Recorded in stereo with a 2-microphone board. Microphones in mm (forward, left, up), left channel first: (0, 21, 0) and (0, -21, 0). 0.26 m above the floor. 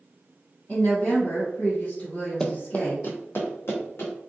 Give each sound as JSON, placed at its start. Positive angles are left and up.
{"t": 0.7, "sound": "a woman speaking", "side_deg": 35, "distance_m": 1.3}
{"t": 2.4, "sound": "running footsteps", "side_deg": 15, "distance_m": 0.5}